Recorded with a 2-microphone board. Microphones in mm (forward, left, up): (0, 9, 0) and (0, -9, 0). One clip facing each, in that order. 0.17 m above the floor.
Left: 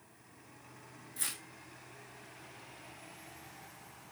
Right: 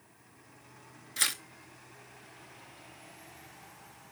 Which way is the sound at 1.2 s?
65° right (ahead or behind).